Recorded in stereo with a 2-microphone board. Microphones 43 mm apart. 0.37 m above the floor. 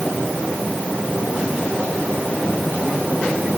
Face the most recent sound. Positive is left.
No sound to turn to.